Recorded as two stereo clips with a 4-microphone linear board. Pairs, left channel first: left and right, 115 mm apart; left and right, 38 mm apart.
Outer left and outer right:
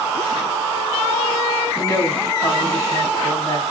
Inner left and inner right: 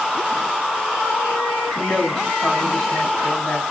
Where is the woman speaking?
25° left (ahead or behind), 5.5 m.